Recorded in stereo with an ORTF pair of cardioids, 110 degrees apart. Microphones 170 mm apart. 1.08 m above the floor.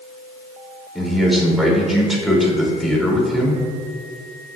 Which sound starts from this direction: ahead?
A man speaking, at 0.9 s.